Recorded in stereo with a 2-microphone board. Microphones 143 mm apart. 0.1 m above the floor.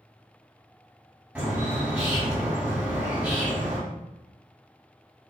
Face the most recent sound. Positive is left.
turn(degrees=-10)  # may be behind; listen again after turning